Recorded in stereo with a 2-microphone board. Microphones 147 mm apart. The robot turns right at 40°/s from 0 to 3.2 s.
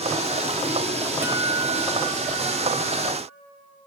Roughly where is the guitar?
Behind.